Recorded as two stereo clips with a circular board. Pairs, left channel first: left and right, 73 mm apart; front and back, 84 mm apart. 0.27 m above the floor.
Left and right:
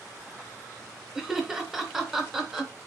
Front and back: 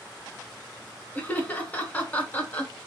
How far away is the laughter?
About 0.9 m.